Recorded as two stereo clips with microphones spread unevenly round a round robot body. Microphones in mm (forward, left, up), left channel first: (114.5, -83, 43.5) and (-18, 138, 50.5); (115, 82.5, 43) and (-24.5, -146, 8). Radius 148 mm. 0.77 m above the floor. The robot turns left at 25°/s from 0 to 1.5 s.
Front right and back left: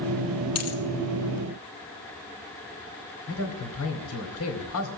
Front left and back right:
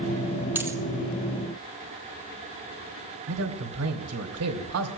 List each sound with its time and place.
0.6 s a dropped coin: 35° right, 1.7 m; by 0.8 s 40° right, 1.7 m
3.3 s a man speaking: 95° right, 2.5 m